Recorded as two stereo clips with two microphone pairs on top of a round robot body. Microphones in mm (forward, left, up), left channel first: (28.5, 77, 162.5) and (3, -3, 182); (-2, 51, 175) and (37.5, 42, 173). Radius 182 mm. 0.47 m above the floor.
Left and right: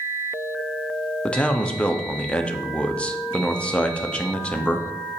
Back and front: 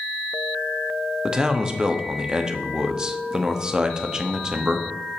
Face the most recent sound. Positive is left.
turn(degrees=40)